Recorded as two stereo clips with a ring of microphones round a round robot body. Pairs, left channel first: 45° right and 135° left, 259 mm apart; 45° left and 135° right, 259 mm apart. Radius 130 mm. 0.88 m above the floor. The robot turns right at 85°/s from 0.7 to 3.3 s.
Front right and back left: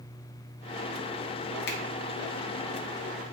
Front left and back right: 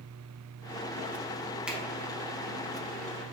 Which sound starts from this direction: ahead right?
A finger snap, at 1.7 s.